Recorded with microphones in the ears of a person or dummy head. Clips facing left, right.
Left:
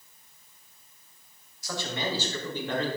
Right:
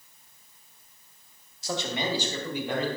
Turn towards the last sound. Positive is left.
turn(degrees=-10)  # may be behind; listen again after turning